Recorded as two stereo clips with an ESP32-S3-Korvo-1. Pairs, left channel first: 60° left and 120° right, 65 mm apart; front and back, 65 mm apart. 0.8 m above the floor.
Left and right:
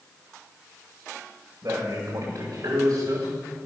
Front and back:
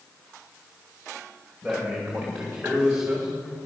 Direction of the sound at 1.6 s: 90° right.